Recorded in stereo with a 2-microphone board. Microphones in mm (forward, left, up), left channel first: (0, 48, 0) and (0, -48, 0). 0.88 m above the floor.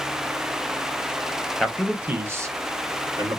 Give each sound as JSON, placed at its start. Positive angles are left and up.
{"t": 1.6, "sound": "a man speaking", "side_deg": 0, "distance_m": 0.8}